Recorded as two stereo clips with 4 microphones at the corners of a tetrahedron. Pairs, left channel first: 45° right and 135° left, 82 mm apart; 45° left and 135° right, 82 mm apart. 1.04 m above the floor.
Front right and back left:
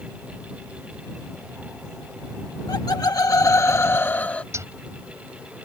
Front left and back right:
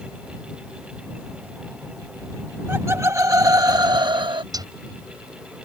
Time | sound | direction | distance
2.7 | laughter | 75° right | ?
4.5 | a zipper | 170° right | ?